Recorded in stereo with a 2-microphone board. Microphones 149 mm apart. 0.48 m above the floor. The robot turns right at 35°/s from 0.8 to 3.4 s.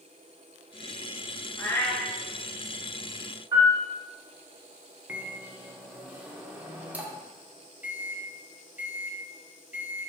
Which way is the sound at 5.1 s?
10° right (ahead or behind).